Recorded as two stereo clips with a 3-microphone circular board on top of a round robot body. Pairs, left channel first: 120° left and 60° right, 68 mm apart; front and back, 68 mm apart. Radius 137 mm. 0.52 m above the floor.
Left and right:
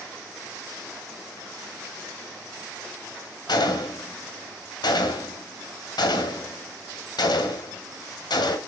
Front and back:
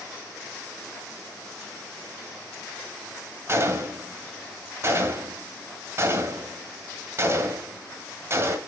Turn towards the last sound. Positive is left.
turn(degrees=125)